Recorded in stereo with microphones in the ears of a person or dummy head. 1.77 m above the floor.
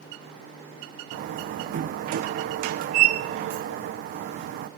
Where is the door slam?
55° right (ahead or behind), 1.0 m.